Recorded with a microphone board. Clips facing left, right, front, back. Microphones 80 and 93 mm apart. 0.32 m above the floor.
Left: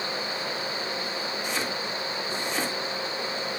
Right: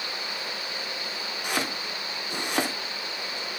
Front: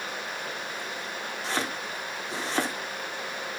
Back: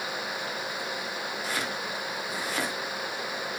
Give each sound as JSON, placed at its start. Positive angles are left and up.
{"t": 1.4, "sound": "chopping", "azimuth_deg": -60, "distance_m": 2.5}